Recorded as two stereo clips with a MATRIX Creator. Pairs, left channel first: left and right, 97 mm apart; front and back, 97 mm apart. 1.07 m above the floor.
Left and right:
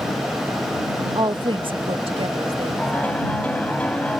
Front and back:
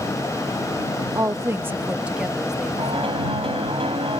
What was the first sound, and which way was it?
A woman speaking, 130° right.